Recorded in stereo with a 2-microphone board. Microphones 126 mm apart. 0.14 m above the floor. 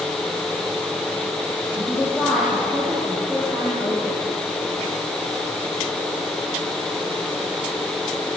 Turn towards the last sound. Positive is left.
turn(degrees=-5)  # may be behind; listen again after turning